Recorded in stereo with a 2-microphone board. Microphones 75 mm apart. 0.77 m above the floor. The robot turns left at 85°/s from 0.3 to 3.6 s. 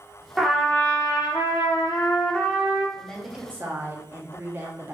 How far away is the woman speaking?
About 0.9 m.